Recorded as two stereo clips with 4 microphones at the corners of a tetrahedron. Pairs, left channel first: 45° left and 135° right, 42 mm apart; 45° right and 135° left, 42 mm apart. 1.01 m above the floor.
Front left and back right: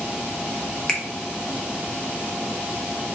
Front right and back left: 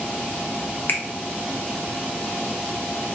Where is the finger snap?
25° right, 0.7 m.